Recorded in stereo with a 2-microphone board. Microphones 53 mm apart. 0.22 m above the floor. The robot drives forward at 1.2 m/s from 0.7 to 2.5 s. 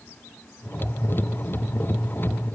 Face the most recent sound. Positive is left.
No sound to turn to.